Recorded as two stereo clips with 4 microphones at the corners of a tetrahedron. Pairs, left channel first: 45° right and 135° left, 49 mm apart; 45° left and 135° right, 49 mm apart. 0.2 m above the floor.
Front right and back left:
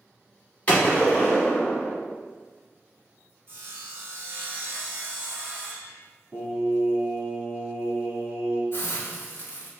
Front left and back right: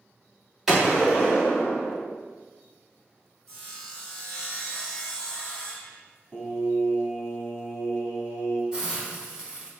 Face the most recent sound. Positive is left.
turn(degrees=-65)